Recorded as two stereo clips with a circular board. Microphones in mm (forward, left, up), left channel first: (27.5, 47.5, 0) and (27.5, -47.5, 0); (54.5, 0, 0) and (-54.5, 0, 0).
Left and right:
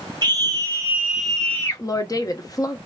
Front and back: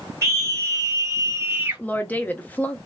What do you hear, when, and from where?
0.2 s a scream: 120° right, 1.3 m; by 1.8 s 115° left, 0.9 m
1.8 s a woman speaking: 70° left, 0.6 m